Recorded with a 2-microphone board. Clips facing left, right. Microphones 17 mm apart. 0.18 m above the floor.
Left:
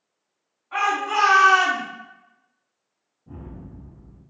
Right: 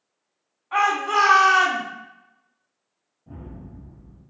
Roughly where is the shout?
Right.